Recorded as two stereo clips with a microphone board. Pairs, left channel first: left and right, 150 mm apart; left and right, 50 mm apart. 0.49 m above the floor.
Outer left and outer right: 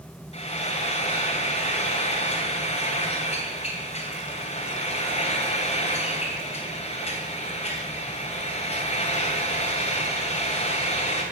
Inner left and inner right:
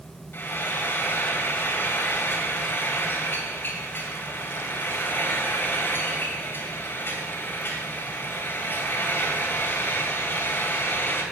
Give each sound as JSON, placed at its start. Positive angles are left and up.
{"t": 0.3, "sound": "frying", "side_deg": 50, "distance_m": 2.5}